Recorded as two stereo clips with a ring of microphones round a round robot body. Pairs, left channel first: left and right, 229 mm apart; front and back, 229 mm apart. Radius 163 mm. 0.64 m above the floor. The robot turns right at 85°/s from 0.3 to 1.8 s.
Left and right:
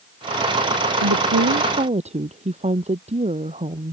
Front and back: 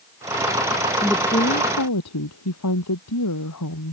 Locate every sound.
1.0 s a woman speaking: 95° right; by 3.9 s 30° right